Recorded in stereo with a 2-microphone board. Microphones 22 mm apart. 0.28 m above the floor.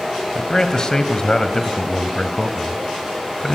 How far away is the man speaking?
About 1.8 m.